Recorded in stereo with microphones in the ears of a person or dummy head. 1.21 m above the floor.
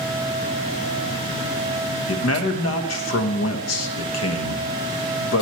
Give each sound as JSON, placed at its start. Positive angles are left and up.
{"t": 2.1, "sound": "a man speaking", "side_deg": 85, "distance_m": 1.2}